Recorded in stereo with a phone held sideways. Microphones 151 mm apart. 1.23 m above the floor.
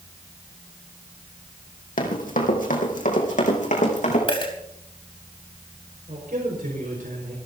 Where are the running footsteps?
70° left (ahead or behind), 3.5 m; by 4.2 s 60° left (ahead or behind), 5 m.